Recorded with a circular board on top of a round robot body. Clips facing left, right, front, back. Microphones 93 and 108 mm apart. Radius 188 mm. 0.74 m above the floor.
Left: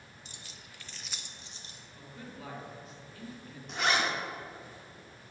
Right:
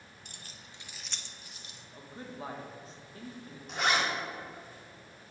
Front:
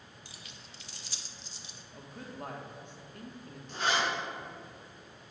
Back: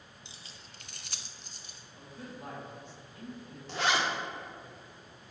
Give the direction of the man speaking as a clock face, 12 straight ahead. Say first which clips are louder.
Right 3 dB, front 1 dB; 1 o'clock.